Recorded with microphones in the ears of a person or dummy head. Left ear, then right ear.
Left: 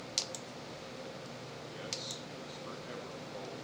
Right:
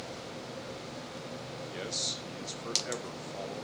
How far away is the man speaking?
About 3 m.